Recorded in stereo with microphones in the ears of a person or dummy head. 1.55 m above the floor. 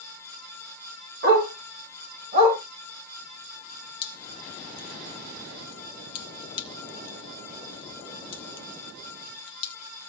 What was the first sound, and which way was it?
A dog barking, 65° right (ahead or behind).